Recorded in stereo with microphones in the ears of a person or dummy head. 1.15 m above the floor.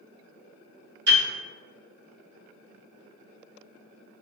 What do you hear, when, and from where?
1.1 s a piano: 65° right (ahead or behind), 1.2 m